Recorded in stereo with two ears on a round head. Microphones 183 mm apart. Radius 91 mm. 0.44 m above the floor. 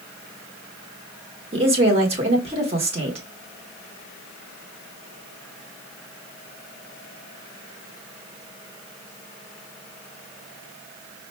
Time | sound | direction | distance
1.5 | a woman speaking | 30° right (ahead or behind) | 0.9 m